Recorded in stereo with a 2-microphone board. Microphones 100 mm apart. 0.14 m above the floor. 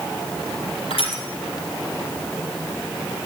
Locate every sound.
0.9 s crushing: 70° left (ahead or behind), 3 m